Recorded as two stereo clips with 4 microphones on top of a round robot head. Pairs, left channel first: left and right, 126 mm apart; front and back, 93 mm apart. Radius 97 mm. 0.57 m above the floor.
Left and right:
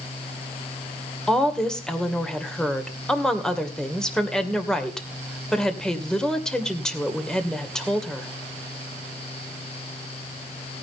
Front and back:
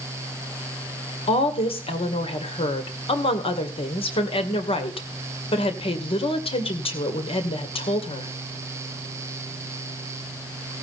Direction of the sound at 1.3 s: 5° left.